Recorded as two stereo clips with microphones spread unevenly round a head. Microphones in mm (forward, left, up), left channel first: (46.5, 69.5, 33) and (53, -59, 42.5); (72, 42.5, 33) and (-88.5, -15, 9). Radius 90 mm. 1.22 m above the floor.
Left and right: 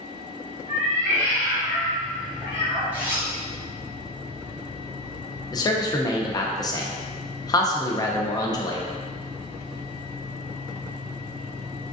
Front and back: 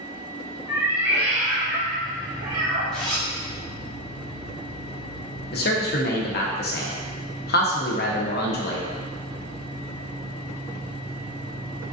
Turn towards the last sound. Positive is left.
turn(degrees=40)